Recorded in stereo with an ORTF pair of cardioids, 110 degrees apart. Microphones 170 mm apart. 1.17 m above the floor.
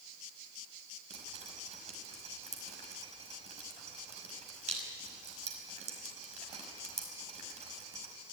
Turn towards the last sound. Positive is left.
turn(degrees=-40)